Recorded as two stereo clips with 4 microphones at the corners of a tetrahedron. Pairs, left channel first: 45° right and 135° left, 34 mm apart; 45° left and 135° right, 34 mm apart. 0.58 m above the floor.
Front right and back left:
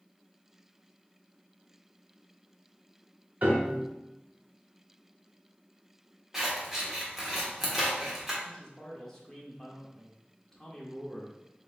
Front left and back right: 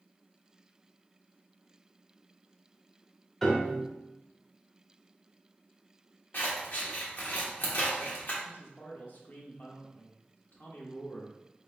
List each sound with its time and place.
3.4 s a piano: 120° left, 1.0 m
6.3 s scissors: 55° left, 1.3 m
8.4 s a man speaking: 25° left, 1.2 m